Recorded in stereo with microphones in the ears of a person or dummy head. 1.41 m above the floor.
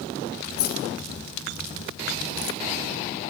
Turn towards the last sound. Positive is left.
turn(degrees=65)  # may be behind; listen again after turning